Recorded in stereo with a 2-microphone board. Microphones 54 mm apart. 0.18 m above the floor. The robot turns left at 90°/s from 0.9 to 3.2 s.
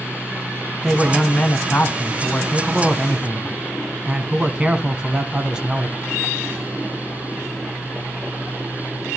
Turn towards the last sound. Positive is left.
turn(degrees=-25)